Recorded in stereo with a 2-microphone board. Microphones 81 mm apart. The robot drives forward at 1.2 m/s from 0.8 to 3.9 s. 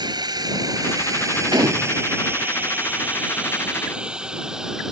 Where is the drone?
60° right (ahead or behind); by 4.9 s 5° right (ahead or behind).